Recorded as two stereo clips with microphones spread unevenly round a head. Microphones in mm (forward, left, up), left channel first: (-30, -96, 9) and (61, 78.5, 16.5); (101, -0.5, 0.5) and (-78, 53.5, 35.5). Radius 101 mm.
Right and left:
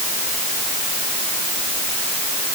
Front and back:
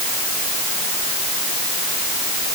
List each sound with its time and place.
Only background noise.